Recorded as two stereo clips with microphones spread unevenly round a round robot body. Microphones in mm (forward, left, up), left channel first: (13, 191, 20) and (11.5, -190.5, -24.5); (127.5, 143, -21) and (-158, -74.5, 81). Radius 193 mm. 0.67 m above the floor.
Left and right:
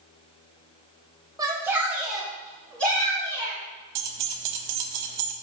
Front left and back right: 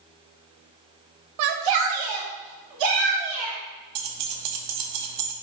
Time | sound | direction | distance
1.4 | a shout | 160° right | 0.7 m
4.0 | keys jangling | 115° right | 0.6 m